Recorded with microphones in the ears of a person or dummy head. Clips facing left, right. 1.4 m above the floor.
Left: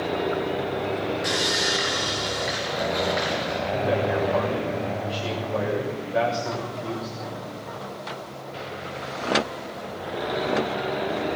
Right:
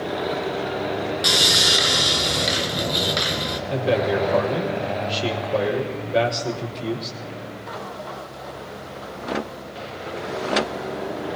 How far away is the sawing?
About 3.5 m.